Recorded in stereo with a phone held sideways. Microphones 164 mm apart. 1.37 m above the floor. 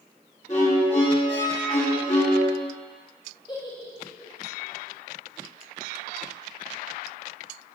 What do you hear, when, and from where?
0.5 s a violin: 45° left (ahead or behind), 3.5 m
3.5 s a giggle: 25° left (ahead or behind), 2.5 m